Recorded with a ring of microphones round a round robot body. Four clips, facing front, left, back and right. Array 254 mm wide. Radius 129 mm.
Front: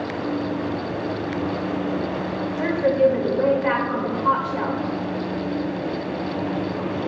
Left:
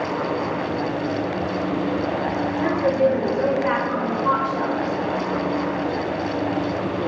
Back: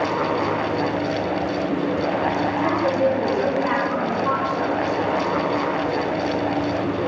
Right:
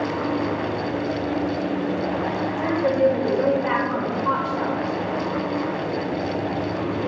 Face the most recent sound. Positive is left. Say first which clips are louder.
# even, front 4 dB
turn(degrees=25)